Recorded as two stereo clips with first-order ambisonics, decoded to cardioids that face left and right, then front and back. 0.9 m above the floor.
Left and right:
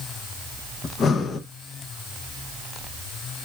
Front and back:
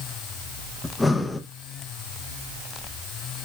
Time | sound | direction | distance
0.8 | breathing | 75° left | 0.6 m